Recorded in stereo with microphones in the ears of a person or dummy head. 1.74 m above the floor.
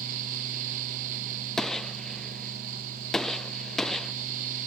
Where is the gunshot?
5° left (ahead or behind).